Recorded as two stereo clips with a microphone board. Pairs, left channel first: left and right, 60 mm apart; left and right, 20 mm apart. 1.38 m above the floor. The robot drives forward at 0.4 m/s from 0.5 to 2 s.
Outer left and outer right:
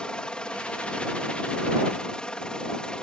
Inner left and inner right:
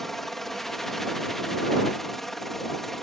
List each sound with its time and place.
0.0 s a helicopter: 15° left (ahead or behind)